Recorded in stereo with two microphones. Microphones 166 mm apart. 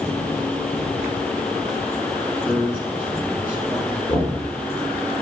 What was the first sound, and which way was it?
A man speaking, 10° right (ahead or behind).